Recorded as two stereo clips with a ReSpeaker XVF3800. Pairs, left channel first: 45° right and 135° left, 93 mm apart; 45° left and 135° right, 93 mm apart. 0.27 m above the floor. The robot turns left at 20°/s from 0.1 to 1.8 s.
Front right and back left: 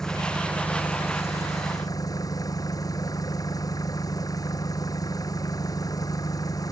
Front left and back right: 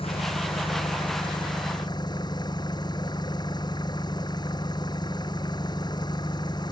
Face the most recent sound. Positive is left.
turn(degrees=5)